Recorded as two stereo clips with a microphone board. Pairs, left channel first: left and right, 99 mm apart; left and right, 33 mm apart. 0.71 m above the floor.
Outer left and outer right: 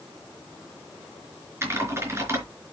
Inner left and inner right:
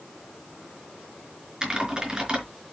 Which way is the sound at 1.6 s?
25° right (ahead or behind).